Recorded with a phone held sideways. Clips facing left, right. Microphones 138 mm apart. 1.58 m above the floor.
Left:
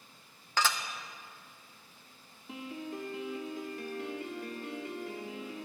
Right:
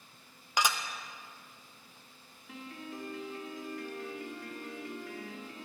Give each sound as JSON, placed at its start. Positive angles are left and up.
{"t": 0.6, "sound": "dishes clattering", "side_deg": -15, "distance_m": 0.6}
{"t": 2.5, "sound": "a piano", "side_deg": 25, "distance_m": 1.3}